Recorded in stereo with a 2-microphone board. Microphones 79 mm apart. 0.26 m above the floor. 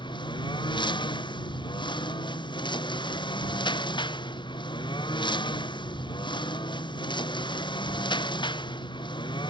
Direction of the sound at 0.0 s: 75° left (ahead or behind).